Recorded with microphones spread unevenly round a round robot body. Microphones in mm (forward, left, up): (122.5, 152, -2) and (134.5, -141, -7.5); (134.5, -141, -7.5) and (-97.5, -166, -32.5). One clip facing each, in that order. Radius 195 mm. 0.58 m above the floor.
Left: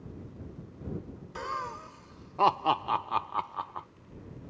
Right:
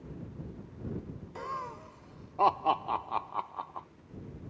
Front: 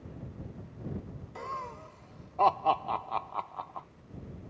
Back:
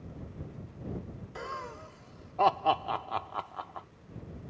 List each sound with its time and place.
1.4 s laughter: 130° left